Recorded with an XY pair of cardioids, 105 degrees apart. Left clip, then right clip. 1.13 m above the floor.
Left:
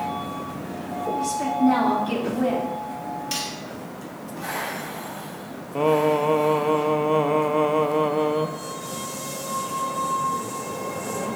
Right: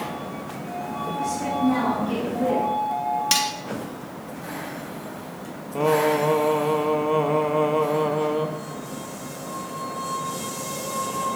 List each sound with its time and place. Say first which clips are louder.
1.2 s a woman speaking: left 2 dB; 65° left, 2.5 m
3.3 s cutlery clinking: right 7 dB; 70° right, 0.9 m
5.8 s singing: even; 15° left, 0.7 m